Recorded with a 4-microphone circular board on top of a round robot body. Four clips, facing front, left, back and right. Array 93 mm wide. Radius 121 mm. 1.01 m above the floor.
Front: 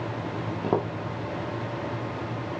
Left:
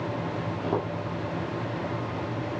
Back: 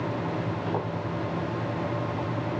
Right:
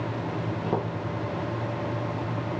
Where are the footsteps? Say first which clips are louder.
Left 1 dB, front 7 dB; 5° right, 3 m.